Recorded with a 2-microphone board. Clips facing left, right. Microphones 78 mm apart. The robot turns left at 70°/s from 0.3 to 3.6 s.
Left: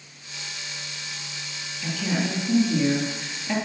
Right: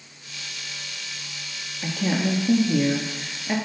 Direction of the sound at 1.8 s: 35° right.